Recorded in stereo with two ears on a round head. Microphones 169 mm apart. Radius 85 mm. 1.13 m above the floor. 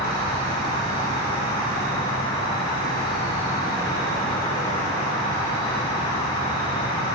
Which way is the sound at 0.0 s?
20° left (ahead or behind).